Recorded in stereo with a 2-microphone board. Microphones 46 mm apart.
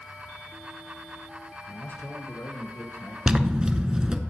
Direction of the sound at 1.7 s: 50° left (ahead or behind).